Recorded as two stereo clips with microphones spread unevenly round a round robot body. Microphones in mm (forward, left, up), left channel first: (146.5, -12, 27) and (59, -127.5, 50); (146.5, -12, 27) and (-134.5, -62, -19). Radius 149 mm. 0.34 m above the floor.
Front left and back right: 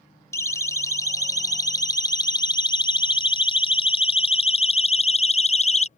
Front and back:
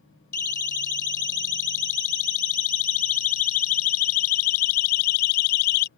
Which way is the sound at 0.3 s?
15° right.